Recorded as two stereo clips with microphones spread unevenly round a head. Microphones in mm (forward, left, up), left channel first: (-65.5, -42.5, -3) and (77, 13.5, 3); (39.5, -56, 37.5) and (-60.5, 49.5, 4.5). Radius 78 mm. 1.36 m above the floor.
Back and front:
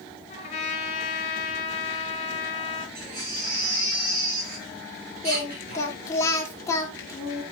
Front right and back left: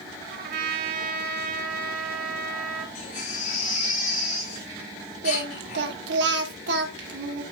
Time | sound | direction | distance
0.3 | a trumpet | 150° left | 5.5 m
3.0 | a baby crying | 10° right | 6.5 m
5.2 | singing | 130° left | 2.5 m